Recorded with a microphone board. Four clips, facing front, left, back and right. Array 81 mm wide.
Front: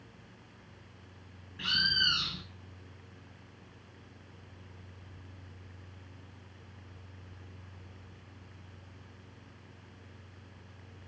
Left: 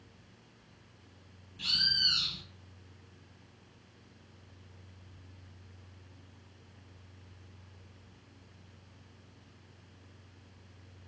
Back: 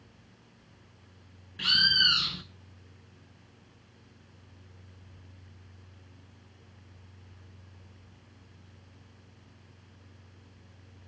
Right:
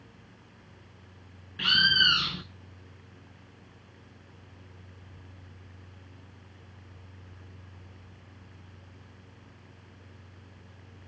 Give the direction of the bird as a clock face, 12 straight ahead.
3 o'clock.